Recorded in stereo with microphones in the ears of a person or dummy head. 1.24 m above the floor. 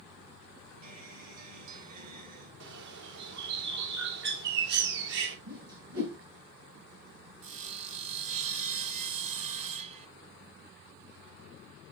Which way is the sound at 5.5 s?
75° right (ahead or behind).